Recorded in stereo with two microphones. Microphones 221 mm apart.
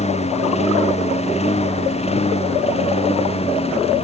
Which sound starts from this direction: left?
A lawn mower, at 0.0 s.